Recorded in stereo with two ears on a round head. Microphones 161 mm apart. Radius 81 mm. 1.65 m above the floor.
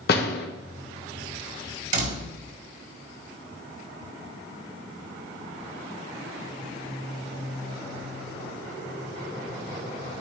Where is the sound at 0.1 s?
55° left (ahead or behind), 1.4 m.